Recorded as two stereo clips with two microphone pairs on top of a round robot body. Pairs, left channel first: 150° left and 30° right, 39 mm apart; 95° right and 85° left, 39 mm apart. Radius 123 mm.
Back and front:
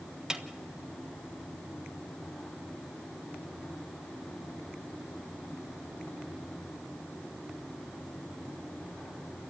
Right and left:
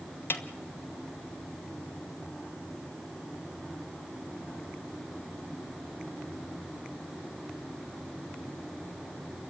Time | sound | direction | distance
0.3 | a snare drum | 105° right | 1.3 m